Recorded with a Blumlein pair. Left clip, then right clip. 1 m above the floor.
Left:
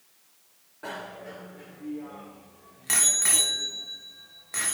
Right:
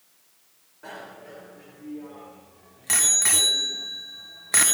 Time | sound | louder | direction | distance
0.8 | a bicycle bell | left 3 dB | 20° left | 2.5 m